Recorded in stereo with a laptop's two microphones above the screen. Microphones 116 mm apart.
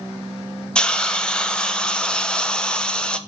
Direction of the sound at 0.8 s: 10° left (ahead or behind).